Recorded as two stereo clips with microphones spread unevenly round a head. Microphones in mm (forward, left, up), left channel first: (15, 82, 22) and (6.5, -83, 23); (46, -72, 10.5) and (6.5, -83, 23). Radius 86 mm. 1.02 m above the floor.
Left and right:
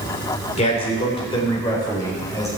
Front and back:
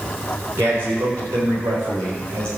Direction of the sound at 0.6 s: 140° left.